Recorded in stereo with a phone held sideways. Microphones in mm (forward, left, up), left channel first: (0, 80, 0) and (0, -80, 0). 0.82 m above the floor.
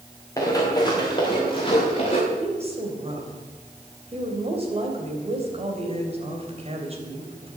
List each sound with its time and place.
0.4 s running footsteps: 20° left (ahead or behind), 4.5 m; by 2.2 s 35° left (ahead or behind), 5.5 m
2.3 s a woman speaking: 40° right (ahead or behind), 3.5 m